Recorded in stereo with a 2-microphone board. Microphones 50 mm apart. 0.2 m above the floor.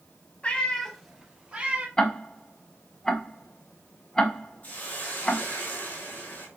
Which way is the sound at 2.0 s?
15° left (ahead or behind).